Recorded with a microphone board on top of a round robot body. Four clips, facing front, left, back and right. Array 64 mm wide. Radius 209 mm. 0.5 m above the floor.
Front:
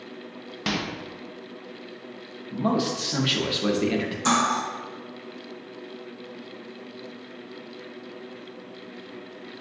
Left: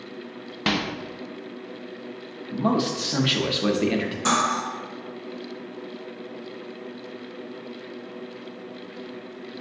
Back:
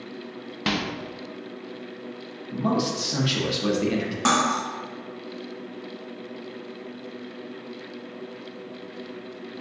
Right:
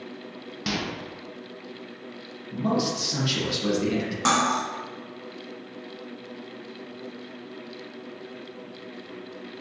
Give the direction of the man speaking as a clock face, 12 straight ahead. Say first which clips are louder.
Left 2 dB, even; 10 o'clock.